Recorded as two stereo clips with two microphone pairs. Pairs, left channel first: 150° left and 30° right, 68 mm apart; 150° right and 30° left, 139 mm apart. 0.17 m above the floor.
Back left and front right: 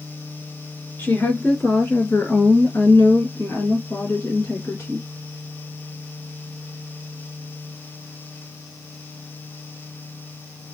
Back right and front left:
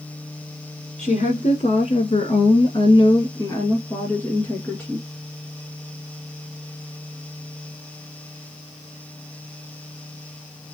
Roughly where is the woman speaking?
Behind right.